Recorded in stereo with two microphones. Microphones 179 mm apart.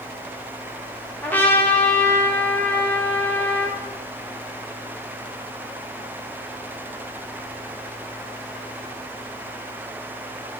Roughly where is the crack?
No crack in this recording.